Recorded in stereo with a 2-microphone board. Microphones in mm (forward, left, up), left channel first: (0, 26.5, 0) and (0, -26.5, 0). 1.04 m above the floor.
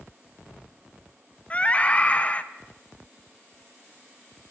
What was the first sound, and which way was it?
A scream, 25° left (ahead or behind).